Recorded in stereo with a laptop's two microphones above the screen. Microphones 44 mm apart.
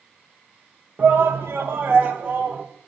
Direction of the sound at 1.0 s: 55° right (ahead or behind).